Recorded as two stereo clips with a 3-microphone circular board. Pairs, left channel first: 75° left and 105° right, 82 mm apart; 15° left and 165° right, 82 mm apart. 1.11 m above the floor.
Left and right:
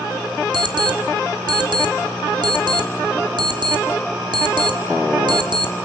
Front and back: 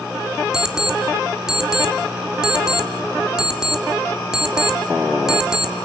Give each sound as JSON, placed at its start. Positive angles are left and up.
{"t": 0.5, "sound": "an alarm clock", "azimuth_deg": -85, "distance_m": 1.9}